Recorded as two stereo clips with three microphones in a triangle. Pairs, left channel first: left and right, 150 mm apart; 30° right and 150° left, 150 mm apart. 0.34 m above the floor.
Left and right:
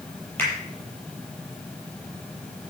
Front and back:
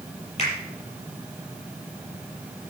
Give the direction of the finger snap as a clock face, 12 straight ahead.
12 o'clock.